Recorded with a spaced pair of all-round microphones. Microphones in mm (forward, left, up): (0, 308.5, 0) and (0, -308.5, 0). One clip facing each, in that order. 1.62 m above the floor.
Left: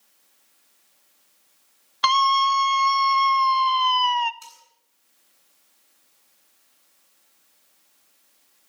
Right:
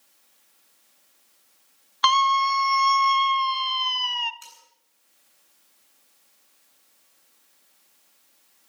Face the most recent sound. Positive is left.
turn(degrees=65)  # may be behind; listen again after turning